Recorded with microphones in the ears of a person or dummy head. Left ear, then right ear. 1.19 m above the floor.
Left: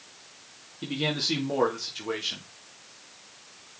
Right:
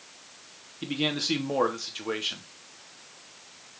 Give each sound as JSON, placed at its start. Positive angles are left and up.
{"t": 0.8, "sound": "a man speaking", "side_deg": -20, "distance_m": 2.5}